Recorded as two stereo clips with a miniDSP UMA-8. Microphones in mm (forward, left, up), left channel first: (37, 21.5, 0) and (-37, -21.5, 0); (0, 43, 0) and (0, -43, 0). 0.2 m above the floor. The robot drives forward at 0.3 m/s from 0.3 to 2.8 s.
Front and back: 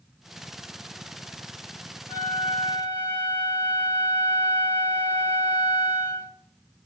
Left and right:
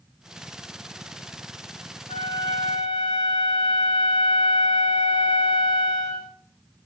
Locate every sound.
2.1 s a flute: 85° left, 2 m; by 6.3 s 90° left, 2 m